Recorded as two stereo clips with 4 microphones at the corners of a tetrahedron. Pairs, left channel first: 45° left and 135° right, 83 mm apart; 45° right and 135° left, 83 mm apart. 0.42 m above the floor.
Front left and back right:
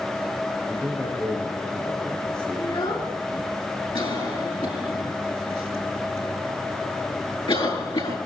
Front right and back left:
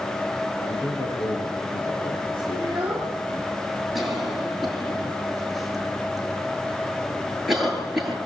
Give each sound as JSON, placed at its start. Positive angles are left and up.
{"t": 0.6, "sound": "a man speaking", "azimuth_deg": -35, "distance_m": 7.0}
{"t": 2.6, "sound": "a child speaking", "azimuth_deg": 60, "distance_m": 4.0}
{"t": 4.0, "sound": "a cough", "azimuth_deg": 45, "distance_m": 9.0}